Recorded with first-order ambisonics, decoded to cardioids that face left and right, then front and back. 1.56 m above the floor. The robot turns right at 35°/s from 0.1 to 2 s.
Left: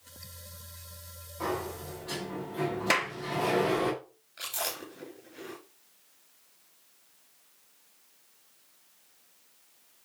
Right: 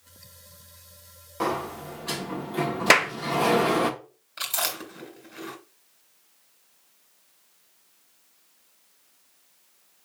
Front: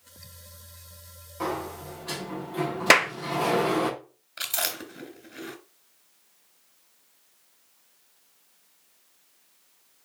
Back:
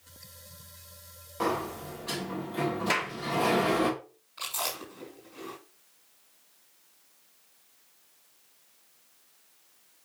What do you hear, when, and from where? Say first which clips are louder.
1.4 s a sliding door: right 5 dB, back 1 dB; 110° right, 1.3 m; by 3.9 s 85° right, 1.3 m
2.9 s a clap: right 9 dB, front 13 dB; 35° right, 0.5 m
4.4 s chewing: right 6 dB, front 3 dB; 35° right, 3 m